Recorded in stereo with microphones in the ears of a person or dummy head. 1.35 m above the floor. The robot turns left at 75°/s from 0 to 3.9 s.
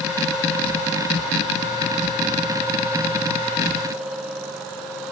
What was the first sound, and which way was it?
Only background noise.